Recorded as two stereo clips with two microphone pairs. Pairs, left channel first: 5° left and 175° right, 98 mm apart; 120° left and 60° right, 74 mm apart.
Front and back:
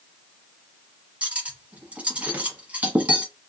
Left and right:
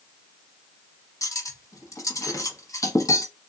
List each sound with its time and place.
1.2 s cutlery clinking: 115° left, 0.9 m